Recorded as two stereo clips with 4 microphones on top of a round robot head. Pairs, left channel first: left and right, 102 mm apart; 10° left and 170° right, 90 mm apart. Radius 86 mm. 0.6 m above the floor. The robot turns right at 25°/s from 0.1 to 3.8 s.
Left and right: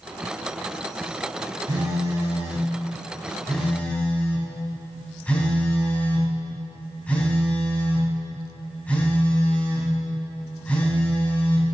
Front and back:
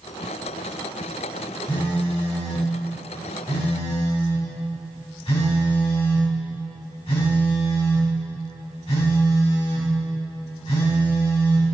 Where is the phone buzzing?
40° right, 3.5 m; by 11.7 s 15° left, 3.5 m.